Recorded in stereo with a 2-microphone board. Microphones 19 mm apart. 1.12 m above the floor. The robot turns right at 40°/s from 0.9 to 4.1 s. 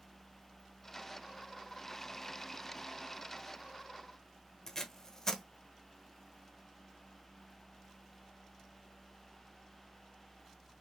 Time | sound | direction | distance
4.7 | tape being pulled | 25° left (ahead or behind) | 1.0 m